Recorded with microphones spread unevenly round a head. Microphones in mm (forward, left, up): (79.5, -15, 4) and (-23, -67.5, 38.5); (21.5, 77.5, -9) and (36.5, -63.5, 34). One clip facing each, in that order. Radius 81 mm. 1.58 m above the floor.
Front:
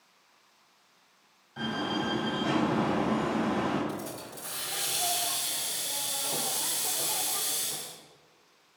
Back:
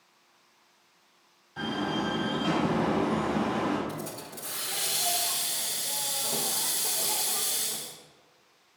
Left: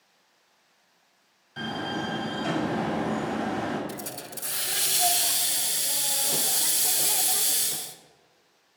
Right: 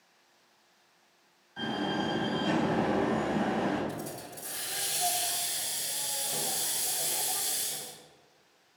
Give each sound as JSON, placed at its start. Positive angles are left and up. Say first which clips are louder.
{"t": 1.6, "sound": "a door slam", "louder": "back 1 dB, even", "azimuth_deg": 125, "distance_m": 6.0}
{"t": 3.9, "sound": "a hiss", "louder": "even, left 1 dB", "azimuth_deg": 115, "distance_m": 1.1}